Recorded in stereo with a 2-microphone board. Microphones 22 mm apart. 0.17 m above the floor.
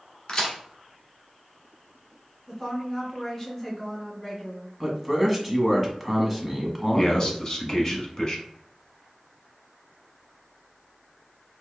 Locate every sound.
0.3 s a crack: 45° left (ahead or behind), 1.4 m
2.5 s a woman speaking: 15° left (ahead or behind), 1.6 m
4.8 s a man speaking: centre (ahead or behind), 1.0 m
7.0 s a man speaking: 35° left (ahead or behind), 1.1 m